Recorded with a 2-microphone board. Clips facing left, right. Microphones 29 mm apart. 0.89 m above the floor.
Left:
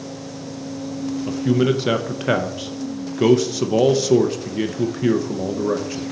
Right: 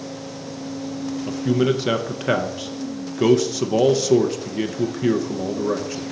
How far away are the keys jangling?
No keys jangling in this recording.